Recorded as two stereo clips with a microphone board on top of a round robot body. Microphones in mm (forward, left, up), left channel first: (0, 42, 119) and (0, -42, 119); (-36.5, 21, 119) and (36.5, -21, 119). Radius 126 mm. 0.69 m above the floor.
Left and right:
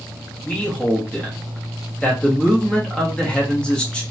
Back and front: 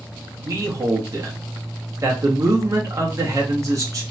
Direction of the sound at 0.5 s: 15° left.